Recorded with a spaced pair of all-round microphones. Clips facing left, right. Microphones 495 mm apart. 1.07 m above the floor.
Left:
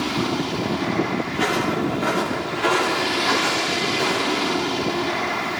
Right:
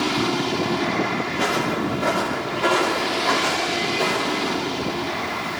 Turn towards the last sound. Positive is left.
turn(degrees=-55)  # may be behind; listen again after turning